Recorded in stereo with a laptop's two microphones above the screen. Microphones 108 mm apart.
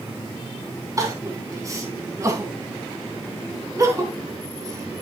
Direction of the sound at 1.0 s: 30° right (ahead or behind).